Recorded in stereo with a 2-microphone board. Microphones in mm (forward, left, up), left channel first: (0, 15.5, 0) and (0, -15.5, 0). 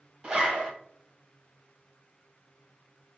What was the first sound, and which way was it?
A zipper, 30° right (ahead or behind).